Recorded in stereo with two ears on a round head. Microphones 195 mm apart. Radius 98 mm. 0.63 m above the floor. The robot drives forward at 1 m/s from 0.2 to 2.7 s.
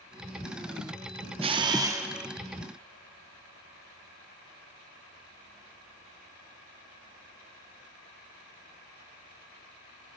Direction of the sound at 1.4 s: 25° right (ahead or behind).